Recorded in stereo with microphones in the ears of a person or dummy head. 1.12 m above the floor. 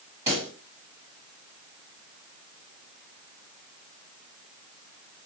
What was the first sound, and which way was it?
A pop, 15° right (ahead or behind).